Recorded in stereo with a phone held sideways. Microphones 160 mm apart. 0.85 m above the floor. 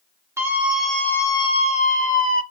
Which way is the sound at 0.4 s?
15° right (ahead or behind).